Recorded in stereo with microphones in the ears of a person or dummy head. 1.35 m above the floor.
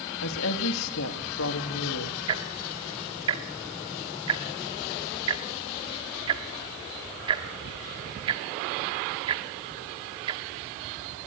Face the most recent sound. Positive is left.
turn(degrees=-20)  # may be behind; listen again after turning